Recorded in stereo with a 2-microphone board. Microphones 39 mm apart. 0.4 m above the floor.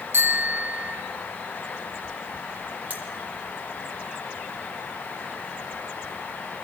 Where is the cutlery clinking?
40° right (ahead or behind), 3 m.